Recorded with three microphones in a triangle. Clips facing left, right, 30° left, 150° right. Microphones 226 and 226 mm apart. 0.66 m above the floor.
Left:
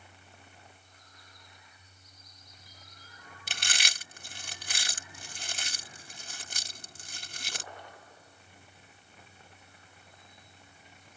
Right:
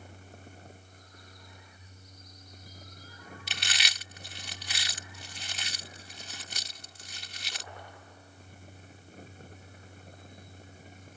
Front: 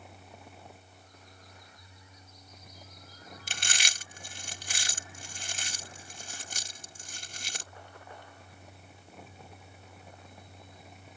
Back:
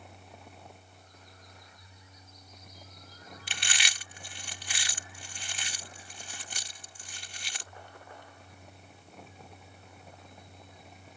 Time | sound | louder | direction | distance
3.5 | chewing | even, front 1 dB | 65° left | ?